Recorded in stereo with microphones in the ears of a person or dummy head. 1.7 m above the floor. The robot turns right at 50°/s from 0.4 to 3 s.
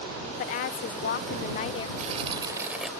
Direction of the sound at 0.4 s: 75° left.